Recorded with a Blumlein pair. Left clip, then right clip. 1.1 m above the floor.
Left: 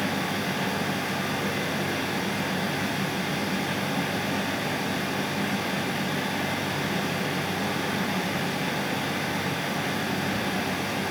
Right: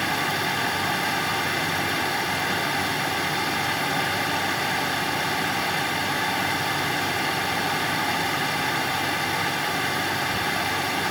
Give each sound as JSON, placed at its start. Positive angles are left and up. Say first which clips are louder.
{"t": 0.0, "sound": "a fan", "louder": "right 4 dB", "azimuth_deg": -70, "distance_m": 3.5}